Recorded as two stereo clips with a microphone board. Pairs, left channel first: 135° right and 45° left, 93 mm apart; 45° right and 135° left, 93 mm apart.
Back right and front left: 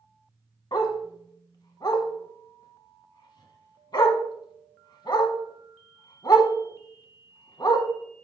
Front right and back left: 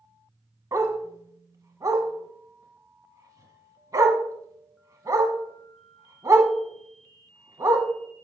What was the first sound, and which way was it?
A dog barking, 175° right.